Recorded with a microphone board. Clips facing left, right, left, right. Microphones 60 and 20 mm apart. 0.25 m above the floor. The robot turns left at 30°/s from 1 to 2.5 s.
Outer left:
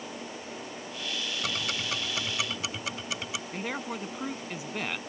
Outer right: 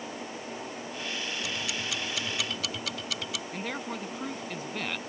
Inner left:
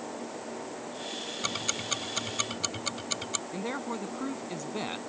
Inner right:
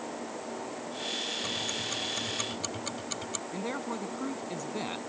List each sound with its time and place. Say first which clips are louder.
1.4 s ticking: outer left 1 dB, inner left 1 dB; 55° left (ahead or behind); by 3.4 s 25° left (ahead or behind)
3.5 s a man speaking: outer left 2 dB, inner right 2 dB; 10° left (ahead or behind)